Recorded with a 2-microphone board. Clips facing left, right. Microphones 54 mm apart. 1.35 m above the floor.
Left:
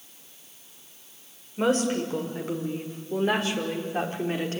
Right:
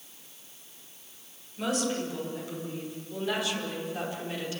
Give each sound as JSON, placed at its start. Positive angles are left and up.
{"t": 1.6, "sound": "a woman speaking", "side_deg": 40, "distance_m": 5.5}